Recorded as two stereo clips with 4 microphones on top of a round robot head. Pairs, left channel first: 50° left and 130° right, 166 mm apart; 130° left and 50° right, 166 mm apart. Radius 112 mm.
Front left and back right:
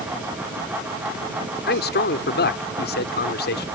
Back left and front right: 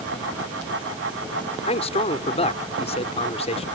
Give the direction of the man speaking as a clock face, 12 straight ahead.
10 o'clock.